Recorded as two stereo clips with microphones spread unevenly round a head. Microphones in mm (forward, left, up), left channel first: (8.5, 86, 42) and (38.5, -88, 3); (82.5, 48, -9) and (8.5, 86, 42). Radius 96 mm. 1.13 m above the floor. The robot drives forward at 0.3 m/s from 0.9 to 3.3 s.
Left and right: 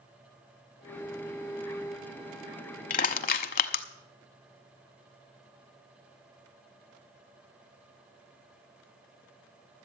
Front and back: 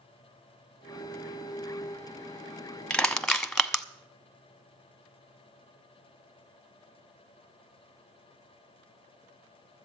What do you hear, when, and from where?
2.9 s crushing: 70° left, 0.8 m; by 3.8 s 75° left, 0.8 m